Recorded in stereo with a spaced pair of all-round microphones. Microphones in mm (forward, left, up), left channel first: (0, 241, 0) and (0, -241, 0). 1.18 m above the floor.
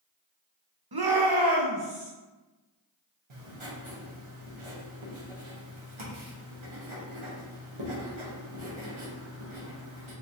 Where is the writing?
75° right (ahead or behind), 1.0 m.